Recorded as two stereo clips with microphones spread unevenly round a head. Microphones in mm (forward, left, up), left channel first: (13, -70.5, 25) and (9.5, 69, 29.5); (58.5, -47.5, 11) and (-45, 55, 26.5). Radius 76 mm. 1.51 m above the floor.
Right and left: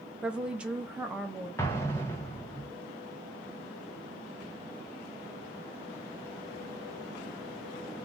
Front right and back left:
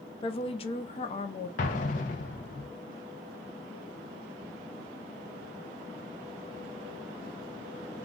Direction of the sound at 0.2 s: 10° left.